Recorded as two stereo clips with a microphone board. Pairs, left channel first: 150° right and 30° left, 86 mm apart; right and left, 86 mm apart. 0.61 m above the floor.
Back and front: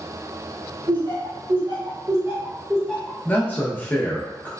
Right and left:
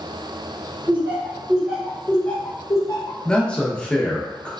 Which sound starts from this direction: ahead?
Laughter, at 0.9 s.